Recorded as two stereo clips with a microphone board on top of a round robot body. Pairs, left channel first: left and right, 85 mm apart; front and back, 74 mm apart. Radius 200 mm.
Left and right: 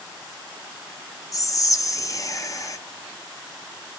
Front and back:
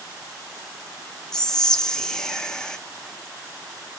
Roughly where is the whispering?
Left.